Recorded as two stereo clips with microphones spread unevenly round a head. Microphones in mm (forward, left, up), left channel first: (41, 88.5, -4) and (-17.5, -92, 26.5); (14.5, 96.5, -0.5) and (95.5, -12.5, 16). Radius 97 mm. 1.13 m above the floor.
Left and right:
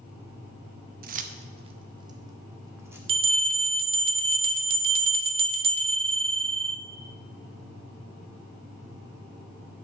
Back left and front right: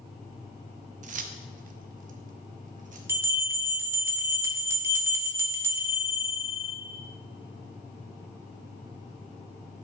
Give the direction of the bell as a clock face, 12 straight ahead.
3 o'clock.